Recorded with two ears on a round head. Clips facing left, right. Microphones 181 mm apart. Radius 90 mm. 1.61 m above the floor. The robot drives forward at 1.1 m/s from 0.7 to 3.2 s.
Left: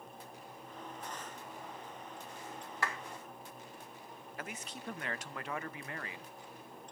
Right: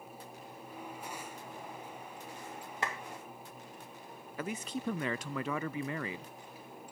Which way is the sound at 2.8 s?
20° right (ahead or behind).